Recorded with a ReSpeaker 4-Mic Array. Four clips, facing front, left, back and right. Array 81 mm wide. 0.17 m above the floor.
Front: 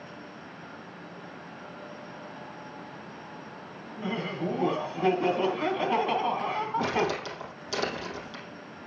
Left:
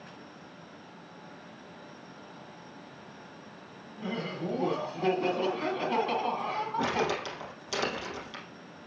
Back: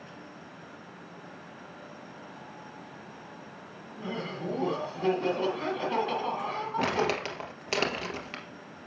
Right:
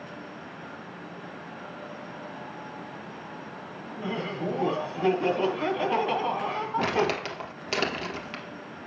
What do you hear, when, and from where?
4.0 s laughter: 35° right, 1.2 m
6.8 s crumpling: 145° right, 2.5 m